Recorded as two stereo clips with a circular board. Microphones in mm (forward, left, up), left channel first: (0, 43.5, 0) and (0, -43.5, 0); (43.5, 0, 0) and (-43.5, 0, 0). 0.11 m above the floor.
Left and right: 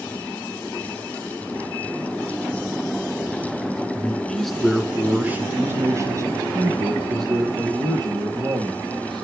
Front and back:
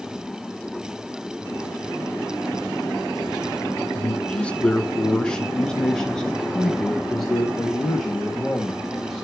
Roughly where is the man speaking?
Ahead left.